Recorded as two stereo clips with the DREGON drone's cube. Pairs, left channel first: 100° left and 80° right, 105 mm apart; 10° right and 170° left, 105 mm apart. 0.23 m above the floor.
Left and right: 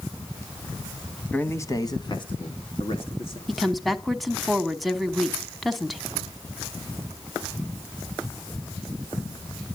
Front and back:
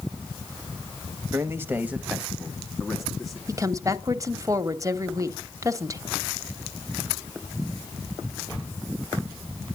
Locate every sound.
1.3 s a man speaking: 155° left, 1.1 m; by 3.4 s 75° left, 2.5 m
3.5 s a woman speaking: 170° right, 1.1 m